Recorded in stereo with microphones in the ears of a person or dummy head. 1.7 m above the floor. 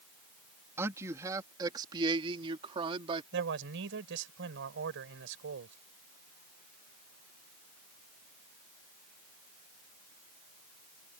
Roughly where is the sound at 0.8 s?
Centre.